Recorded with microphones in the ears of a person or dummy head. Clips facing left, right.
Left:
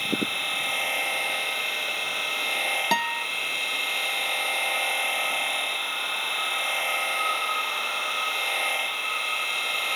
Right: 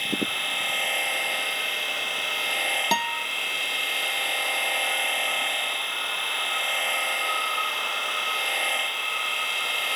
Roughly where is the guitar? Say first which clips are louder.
Even; centre.